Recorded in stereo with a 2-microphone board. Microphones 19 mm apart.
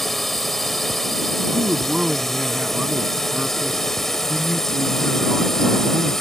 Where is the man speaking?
45° right (ahead or behind).